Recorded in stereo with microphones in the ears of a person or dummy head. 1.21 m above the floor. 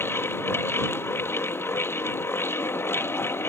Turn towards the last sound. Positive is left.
turn(degrees=15)  # may be behind; listen again after turning